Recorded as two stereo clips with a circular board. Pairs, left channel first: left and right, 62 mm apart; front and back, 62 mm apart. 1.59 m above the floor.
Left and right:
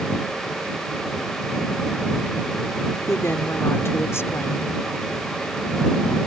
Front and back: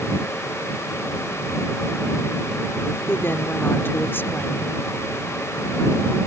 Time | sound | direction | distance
3.1 | a woman speaking | 50° left | ?